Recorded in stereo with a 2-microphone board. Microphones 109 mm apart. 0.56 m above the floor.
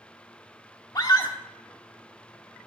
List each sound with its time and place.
0.9 s a scream: 40° left (ahead or behind), 1.0 m